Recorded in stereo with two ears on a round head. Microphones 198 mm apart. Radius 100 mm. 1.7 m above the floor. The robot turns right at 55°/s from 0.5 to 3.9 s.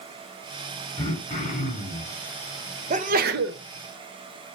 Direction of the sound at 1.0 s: 55° left.